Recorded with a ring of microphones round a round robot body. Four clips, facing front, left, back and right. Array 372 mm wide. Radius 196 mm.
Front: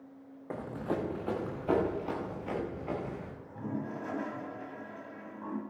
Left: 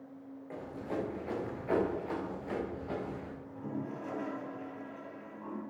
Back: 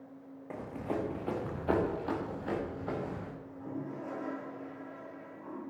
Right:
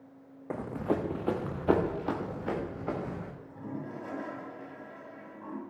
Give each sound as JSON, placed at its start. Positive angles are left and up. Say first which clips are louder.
{"t": 0.5, "sound": "running footsteps", "louder": "right 7 dB, front 2 dB", "azimuth_deg": -75, "distance_m": 2.0}
{"t": 3.4, "sound": "a toilet flushing", "louder": "even, front 3 dB", "azimuth_deg": -10, "distance_m": 3.0}